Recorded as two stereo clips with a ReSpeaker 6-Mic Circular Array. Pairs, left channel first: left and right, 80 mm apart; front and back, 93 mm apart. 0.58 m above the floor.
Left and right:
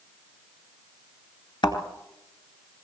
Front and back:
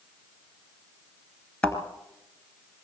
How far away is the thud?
About 2.5 m.